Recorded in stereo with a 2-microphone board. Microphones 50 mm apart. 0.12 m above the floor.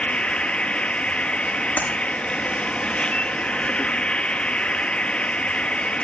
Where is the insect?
25° left (ahead or behind), 0.9 m.